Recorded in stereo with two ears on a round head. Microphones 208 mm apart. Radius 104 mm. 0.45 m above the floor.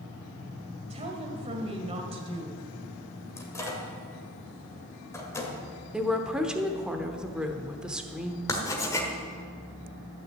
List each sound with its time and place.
0.9 s a woman speaking: 25° right (ahead or behind), 1.8 m
3.4 s a microwave: 15° left (ahead or behind), 1.8 m
5.9 s a woman speaking: 5° right (ahead or behind), 0.9 m
8.5 s writing: 15° left (ahead or behind), 1.5 m